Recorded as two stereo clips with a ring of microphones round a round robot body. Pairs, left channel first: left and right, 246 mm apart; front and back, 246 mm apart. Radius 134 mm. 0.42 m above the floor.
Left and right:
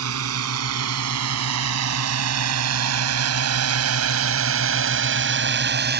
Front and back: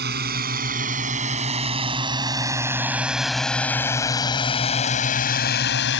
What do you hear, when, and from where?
0.0 s a drone: 125° right; by 6.0 s 45° right